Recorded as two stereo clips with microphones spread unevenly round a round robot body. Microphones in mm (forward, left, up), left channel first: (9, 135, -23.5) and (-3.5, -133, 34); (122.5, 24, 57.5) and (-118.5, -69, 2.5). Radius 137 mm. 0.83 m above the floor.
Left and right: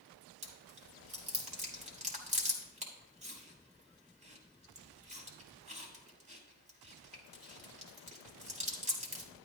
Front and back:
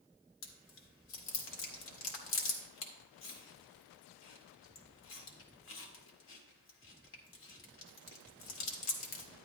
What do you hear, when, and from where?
0.4 s chewing: 25° right, 1.6 m